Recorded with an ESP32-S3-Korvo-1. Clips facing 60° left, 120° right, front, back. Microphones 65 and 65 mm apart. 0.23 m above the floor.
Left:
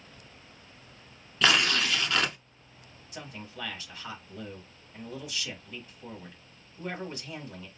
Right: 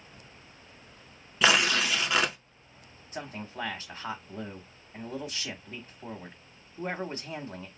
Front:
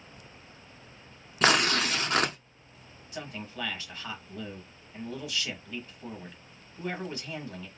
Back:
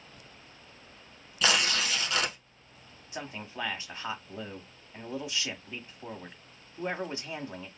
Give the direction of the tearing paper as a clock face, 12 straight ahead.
1 o'clock.